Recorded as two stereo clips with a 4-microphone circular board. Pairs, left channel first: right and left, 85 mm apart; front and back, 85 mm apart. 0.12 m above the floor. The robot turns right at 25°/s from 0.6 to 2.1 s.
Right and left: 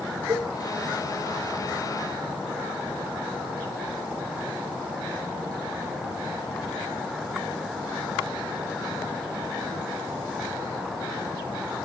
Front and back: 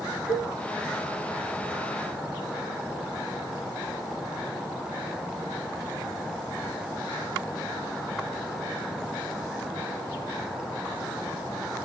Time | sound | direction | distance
0.3 | a cowbell | 110° left | 5 m